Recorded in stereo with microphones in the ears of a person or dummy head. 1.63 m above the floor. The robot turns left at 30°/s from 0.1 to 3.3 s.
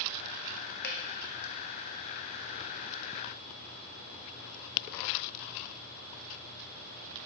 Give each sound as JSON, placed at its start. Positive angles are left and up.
{"t": 0.8, "sound": "dripping", "side_deg": 60, "distance_m": 0.9}